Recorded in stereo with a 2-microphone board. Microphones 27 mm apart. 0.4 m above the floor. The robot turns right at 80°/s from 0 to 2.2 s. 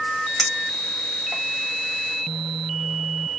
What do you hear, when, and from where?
0.4 s a clink: 10° left (ahead or behind), 2.5 m; by 1.4 s 65° right (ahead or behind), 2.5 m